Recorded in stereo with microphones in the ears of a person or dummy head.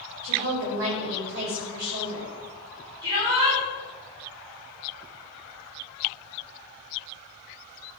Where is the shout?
55° right (ahead or behind), 5.5 m.